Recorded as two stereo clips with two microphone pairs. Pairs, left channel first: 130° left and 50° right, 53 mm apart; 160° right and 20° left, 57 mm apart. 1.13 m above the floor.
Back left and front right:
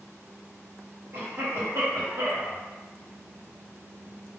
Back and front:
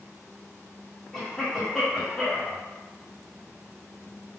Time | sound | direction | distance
1.1 | a cough | 65° right | 1.3 m